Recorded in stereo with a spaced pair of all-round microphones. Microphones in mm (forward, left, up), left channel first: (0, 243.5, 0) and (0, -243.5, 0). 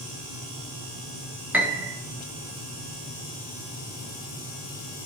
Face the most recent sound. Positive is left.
turn(degrees=-5)  # may be behind; listen again after turning